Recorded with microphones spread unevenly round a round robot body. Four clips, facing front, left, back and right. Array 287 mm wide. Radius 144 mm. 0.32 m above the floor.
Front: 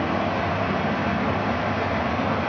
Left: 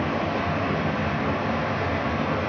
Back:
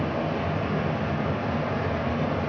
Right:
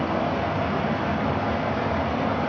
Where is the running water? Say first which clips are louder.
Right 1 dB, front 3 dB; 50° right, 0.9 m.